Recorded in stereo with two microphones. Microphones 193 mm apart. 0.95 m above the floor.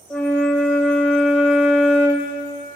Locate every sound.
0.1 s a flute: 5° left (ahead or behind), 1.4 m